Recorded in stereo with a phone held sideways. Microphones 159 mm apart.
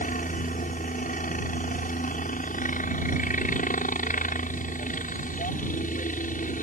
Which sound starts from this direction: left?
A helicopter, at 0.0 s.